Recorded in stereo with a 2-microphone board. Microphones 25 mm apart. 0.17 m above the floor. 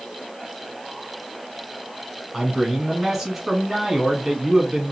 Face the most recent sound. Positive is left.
turn(degrees=-10)  # may be behind; listen again after turning